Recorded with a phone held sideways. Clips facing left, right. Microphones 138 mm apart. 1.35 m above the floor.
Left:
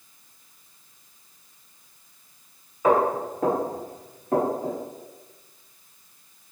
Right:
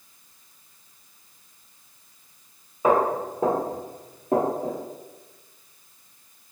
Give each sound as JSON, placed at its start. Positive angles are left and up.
{"t": 2.8, "sound": "footsteps", "side_deg": -20, "distance_m": 1.9}